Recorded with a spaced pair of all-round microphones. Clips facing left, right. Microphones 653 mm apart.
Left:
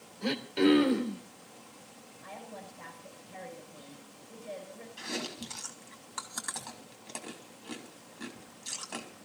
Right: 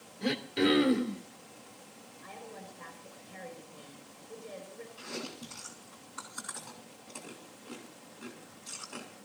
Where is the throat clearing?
45° right (ahead or behind), 2.5 m.